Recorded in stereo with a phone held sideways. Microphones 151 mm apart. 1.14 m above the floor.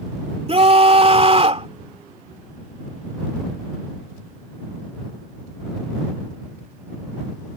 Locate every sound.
0.5 s a scream: 40° right (ahead or behind)